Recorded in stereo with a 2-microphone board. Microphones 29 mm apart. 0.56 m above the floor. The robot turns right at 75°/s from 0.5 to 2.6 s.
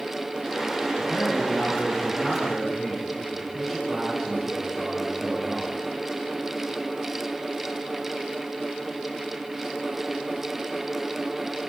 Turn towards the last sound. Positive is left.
turn(degrees=170)